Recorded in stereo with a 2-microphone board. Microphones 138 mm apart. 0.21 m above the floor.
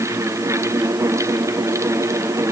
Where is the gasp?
I don't hear a gasp.